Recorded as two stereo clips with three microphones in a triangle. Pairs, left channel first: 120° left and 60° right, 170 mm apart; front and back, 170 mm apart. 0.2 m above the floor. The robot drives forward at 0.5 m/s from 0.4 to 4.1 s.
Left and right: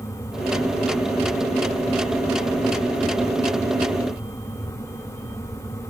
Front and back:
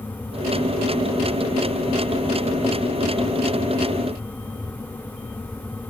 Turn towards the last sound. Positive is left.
No sound to turn to.